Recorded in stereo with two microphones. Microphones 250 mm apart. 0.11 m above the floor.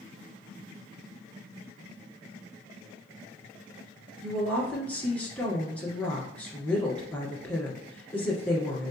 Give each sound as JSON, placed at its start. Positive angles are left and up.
{"t": 4.2, "sound": "a woman speaking", "side_deg": 5, "distance_m": 1.6}